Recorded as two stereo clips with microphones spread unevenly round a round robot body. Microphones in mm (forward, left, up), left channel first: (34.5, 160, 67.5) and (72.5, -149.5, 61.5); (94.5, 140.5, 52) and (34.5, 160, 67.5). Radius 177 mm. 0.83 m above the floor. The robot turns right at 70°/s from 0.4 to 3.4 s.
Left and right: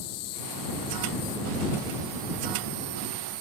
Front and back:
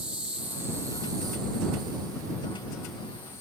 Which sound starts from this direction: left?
An insect, at 0.0 s.